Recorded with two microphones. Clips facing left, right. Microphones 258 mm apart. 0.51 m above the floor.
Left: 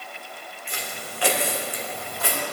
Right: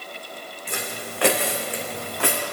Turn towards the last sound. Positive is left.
turn(degrees=-80)